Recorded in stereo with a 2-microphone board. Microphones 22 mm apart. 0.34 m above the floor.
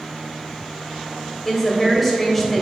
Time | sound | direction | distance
1.4 | a woman speaking | 5° left (ahead or behind) | 1.7 m